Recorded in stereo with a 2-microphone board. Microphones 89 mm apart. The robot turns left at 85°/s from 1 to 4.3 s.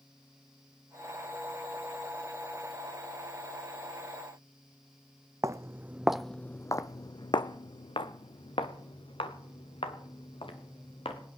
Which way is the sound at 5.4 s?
35° right (ahead or behind).